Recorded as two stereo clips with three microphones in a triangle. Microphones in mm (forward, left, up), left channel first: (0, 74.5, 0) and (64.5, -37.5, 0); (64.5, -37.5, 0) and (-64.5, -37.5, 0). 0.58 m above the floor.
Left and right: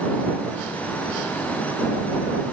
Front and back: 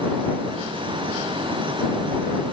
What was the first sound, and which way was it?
Only background noise.